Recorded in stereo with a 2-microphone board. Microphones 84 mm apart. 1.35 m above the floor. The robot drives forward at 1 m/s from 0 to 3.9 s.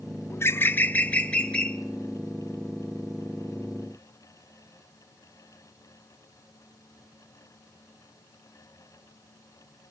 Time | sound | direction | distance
0.3 | a bird | 30° left (ahead or behind) | 0.7 m